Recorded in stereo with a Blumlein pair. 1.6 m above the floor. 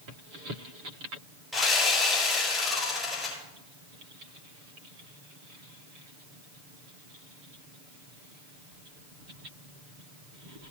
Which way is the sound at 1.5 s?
5° left.